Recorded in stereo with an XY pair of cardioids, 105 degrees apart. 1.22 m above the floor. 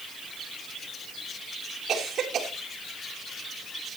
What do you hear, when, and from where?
1.9 s a cough: 60° right, 2.5 m